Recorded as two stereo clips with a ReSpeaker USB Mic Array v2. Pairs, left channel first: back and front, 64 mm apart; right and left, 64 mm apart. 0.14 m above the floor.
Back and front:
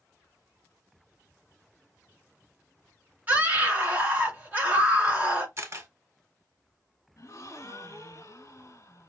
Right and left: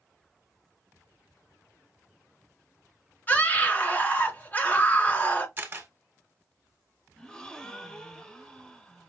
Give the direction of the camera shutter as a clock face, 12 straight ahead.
11 o'clock.